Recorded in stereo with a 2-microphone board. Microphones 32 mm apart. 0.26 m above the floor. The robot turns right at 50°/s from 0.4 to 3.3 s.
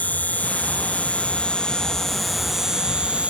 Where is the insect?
85° left; by 3.3 s 130° right.